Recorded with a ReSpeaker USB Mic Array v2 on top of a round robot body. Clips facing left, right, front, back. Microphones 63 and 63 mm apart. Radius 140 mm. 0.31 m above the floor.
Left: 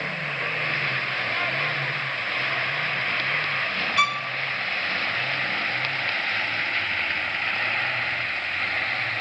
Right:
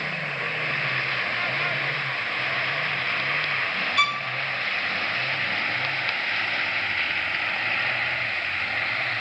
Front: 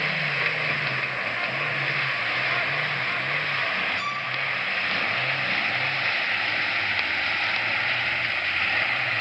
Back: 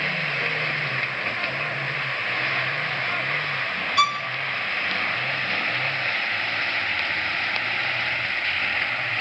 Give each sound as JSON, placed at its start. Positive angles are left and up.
{"t": 4.0, "sound": "a violin", "azimuth_deg": 175, "distance_m": 0.7}